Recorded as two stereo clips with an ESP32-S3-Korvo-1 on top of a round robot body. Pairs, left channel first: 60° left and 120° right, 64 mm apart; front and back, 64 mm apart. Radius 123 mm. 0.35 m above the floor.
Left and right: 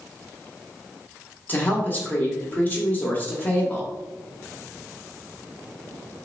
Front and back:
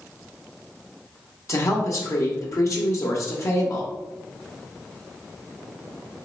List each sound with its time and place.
1.5 s a woman speaking: 10° left, 1.1 m